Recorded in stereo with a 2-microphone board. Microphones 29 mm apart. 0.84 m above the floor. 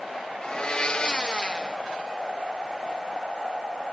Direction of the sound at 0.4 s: 35° left (ahead or behind).